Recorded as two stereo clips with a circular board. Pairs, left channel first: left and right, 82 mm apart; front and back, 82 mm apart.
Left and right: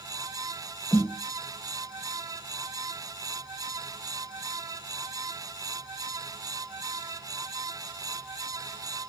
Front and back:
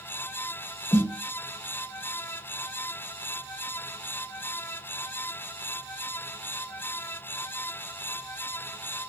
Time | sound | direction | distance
0.9 | a snare drum | 20° left | 1.2 m